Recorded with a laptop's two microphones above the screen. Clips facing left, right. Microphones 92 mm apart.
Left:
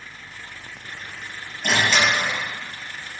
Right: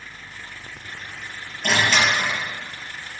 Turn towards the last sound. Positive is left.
turn(degrees=10)  # may be behind; listen again after turning